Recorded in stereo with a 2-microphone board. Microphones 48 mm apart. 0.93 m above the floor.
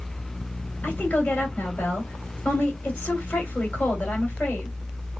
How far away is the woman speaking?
About 2.0 m.